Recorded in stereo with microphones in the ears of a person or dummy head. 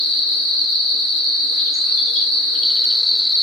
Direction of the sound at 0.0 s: 5° left (ahead or behind).